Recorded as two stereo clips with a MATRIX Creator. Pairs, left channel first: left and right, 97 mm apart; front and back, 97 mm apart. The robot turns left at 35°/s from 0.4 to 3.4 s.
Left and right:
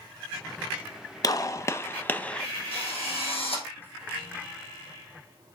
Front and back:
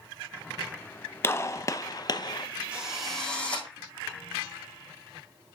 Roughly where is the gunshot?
Ahead left.